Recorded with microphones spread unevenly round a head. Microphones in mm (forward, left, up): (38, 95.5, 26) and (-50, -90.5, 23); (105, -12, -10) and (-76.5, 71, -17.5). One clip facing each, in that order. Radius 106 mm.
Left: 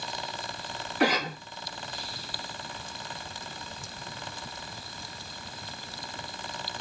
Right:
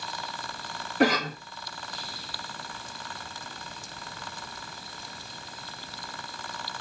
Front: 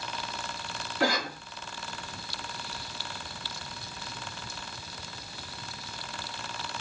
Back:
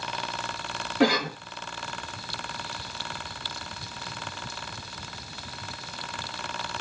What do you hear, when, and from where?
1.0 s a cough: 165° right, 1.1 m